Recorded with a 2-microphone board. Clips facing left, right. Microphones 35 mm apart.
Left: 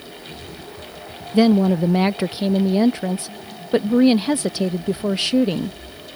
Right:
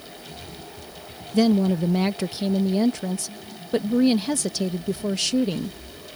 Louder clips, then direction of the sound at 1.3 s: Left 4 dB; 25° left (ahead or behind).